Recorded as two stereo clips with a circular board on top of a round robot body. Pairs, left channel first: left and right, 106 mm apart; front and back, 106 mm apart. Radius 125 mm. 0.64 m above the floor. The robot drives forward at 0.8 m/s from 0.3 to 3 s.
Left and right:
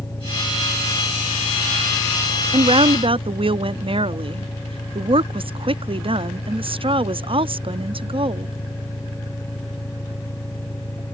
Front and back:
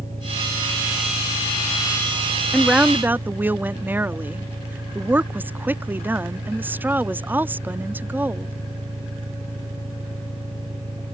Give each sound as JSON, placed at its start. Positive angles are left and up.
{"t": 0.0, "sound": "an engine running", "azimuth_deg": 155}
{"t": 2.5, "sound": "a woman speaking", "azimuth_deg": -90}